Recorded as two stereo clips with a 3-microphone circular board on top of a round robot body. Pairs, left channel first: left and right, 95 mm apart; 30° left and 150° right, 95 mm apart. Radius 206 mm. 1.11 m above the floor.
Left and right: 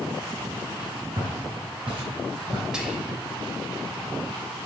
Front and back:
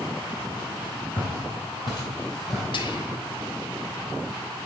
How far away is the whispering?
About 1.0 m.